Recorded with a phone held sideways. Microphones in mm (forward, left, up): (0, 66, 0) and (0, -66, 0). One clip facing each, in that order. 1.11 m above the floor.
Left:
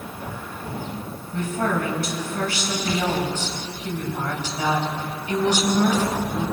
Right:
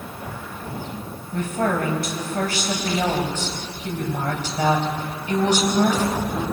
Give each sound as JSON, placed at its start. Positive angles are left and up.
{"t": 1.3, "sound": "a woman speaking", "side_deg": -45, "distance_m": 5.5}